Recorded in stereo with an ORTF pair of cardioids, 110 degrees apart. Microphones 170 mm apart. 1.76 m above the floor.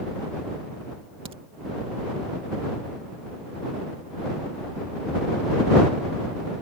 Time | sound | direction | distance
1.2 | a crack | 35° right | ?